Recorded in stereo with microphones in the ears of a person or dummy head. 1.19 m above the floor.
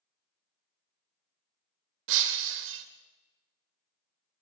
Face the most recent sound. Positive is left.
turn(degrees=-65)  # may be behind; listen again after turning